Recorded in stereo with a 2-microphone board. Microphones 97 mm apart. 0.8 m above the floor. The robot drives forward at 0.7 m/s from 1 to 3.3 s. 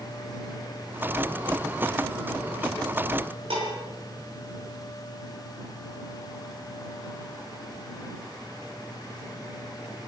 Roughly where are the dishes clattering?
Right.